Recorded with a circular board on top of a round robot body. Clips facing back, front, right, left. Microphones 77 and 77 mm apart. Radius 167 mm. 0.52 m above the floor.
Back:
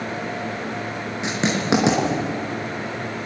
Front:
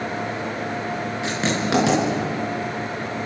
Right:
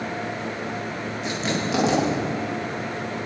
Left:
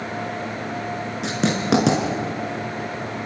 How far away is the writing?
About 6 m.